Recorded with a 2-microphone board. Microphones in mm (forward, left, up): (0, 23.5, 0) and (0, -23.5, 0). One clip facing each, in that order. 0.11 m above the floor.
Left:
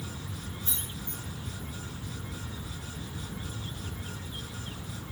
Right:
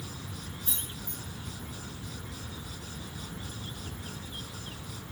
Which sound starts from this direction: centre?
Keys jangling, at 0.7 s.